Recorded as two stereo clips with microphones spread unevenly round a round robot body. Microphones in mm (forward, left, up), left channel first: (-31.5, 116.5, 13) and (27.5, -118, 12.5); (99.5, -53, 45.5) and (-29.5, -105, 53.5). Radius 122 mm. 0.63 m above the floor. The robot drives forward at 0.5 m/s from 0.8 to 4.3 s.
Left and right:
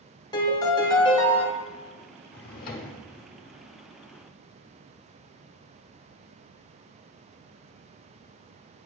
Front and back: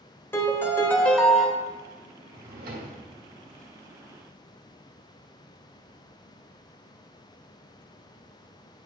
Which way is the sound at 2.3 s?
155° left.